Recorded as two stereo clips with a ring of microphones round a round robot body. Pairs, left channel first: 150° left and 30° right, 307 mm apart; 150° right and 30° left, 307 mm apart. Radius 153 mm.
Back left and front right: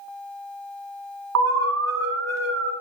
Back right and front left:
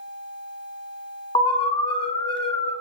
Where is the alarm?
75° right, 2.5 m.